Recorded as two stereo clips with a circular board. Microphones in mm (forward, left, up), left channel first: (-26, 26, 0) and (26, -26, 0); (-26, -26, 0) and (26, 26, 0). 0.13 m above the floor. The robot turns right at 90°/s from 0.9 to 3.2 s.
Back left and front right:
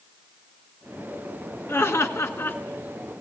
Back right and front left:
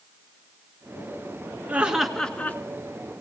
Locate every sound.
1.7 s laughter: 100° left, 1.7 m; by 2.6 s straight behind, 1.7 m